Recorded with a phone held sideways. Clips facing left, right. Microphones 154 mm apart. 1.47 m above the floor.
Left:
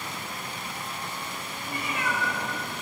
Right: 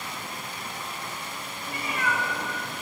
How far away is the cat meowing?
About 3 m.